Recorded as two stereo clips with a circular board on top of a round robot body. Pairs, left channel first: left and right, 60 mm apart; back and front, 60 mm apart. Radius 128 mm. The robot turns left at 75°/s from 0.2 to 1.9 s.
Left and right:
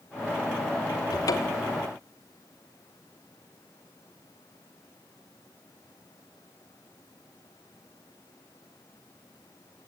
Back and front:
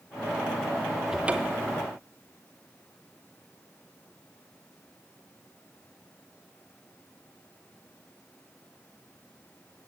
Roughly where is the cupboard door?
Left.